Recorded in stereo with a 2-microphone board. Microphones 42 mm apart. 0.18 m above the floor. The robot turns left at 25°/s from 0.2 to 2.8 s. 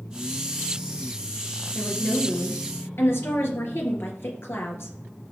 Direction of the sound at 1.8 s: 60° left (ahead or behind).